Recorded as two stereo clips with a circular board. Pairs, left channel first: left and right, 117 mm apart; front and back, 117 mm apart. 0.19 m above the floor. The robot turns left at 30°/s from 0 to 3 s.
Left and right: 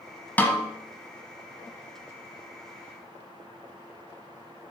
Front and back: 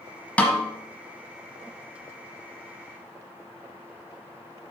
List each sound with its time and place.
0.4 s a snare drum: 50° left, 1.2 m; by 0.7 s 40° left, 1.2 m